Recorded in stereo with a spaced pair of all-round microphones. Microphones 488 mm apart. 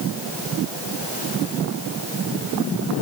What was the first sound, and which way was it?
Only background noise.